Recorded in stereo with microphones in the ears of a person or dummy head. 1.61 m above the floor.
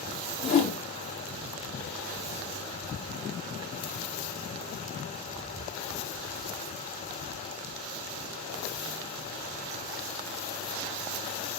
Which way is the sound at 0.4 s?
40° left (ahead or behind).